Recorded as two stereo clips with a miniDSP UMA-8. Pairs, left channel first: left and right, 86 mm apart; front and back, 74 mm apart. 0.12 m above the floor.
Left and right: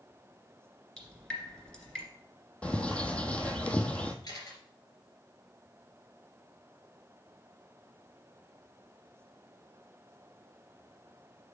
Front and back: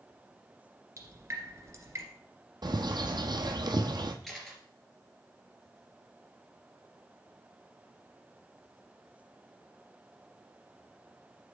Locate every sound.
1.0 s dripping: 170° left, 2 m
2.6 s a bird: 165° left, 0.8 m
4.2 s a camera shutter: 85° left, 2.5 m